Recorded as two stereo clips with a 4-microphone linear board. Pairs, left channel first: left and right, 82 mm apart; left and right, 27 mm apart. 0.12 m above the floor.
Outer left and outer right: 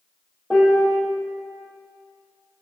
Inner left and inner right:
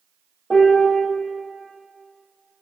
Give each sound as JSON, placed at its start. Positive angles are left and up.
{"t": 0.5, "sound": "a piano", "side_deg": 0, "distance_m": 1.8}